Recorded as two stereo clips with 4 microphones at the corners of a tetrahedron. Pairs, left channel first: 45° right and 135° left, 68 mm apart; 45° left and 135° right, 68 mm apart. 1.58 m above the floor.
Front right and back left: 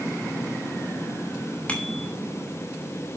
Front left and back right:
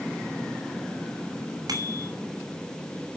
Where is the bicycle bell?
115° right, 7 m.